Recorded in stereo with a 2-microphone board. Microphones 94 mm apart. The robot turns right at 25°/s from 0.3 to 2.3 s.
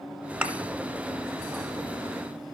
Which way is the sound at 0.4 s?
15° right (ahead or behind).